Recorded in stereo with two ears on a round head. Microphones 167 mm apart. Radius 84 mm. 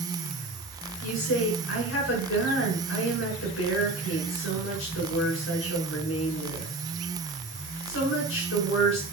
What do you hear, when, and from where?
1.0 s a woman speaking: 80° left, 6.5 m